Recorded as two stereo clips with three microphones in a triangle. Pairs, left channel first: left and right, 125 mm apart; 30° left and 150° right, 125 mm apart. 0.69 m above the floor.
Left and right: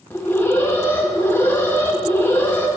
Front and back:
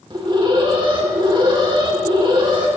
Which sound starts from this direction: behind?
An alarm, at 0.1 s.